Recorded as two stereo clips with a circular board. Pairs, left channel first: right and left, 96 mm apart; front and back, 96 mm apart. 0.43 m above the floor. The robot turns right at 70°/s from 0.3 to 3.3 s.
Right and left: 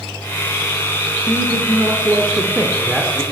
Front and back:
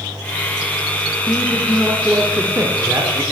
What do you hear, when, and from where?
1.3 s a man speaking: 55° left, 0.8 m; by 3.2 s 170° right, 0.8 m